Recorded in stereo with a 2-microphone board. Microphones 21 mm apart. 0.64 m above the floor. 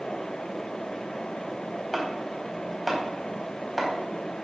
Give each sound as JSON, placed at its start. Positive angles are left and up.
{"t": 1.9, "sound": "chopping", "side_deg": 0, "distance_m": 3.5}